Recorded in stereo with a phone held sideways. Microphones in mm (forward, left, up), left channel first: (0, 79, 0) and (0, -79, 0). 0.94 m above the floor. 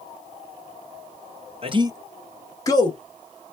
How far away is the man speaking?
About 0.9 m.